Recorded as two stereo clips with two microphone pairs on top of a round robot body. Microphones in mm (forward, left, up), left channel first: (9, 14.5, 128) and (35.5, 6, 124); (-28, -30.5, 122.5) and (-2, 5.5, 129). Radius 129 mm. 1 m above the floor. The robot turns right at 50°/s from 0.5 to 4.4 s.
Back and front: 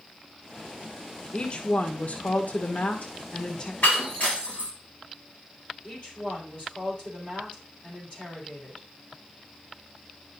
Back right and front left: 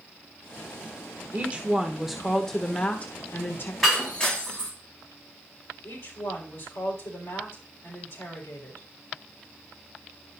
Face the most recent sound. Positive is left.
turn(degrees=-145)